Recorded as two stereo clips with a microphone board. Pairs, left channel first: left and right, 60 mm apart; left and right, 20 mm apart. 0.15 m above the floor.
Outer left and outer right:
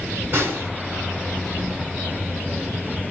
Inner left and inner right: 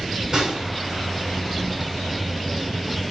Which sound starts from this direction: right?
A snare drum, at 0.3 s.